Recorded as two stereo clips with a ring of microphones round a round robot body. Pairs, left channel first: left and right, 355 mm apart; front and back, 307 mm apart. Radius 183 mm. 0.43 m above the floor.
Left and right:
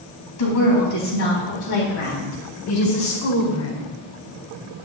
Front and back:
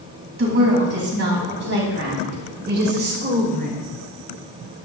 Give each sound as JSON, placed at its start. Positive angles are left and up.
{"t": 0.4, "sound": "a woman speaking", "azimuth_deg": 130, "distance_m": 4.0}